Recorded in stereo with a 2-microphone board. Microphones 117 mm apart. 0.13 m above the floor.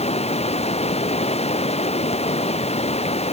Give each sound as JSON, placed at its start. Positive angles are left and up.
{"t": 0.0, "sound": "running water", "side_deg": 65}